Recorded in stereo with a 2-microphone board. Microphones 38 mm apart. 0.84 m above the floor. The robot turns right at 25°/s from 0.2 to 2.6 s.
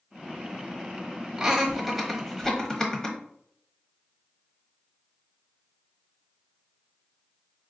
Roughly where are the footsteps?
No footsteps in this recording.